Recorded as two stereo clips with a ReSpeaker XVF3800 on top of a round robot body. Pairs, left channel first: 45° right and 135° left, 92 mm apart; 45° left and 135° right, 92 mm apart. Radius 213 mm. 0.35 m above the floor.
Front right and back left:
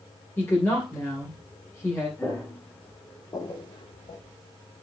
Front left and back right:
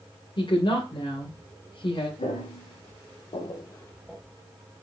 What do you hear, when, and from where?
0.4 s a woman speaking: 25° left, 3 m
2.2 s footsteps: 30° left, 2.5 m; by 4.2 s 50° right, 0.8 m